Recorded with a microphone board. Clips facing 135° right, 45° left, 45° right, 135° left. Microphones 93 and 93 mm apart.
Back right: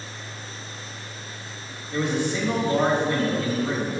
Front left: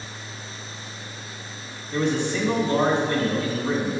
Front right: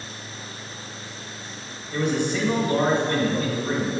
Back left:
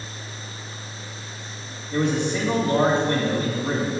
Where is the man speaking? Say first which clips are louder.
Front left 1 dB, back left 1 dB; 160° left, 1.4 m.